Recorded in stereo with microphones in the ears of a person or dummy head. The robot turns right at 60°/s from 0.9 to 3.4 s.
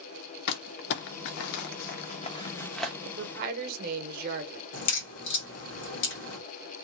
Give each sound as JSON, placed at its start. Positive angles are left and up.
{"t": 0.5, "sound": "crumpling", "side_deg": 60, "distance_m": 0.7}
{"t": 3.0, "sound": "a woman speaking", "side_deg": -60, "distance_m": 0.8}
{"t": 4.7, "sound": "a crack", "side_deg": 60, "distance_m": 1.4}